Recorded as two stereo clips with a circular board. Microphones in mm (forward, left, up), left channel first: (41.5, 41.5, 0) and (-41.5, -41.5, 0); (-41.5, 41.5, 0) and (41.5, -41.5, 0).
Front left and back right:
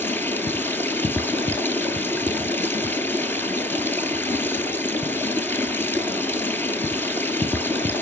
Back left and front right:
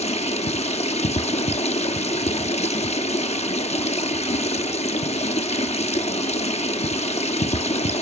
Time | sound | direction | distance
0.0 | running water | 115° left | 1.0 m